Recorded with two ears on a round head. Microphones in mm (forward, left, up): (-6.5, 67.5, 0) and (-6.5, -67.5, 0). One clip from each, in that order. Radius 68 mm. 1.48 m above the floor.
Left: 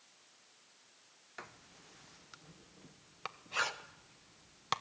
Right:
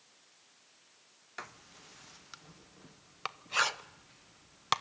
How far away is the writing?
About 0.9 m.